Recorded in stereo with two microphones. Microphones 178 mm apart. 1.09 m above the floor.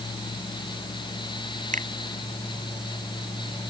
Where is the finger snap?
45° right (ahead or behind).